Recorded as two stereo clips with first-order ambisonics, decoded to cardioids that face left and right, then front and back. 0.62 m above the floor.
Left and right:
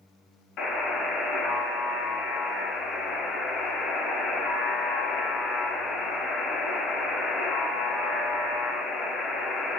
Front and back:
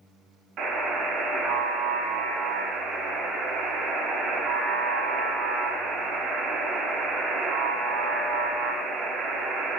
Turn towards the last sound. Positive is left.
turn(degrees=135)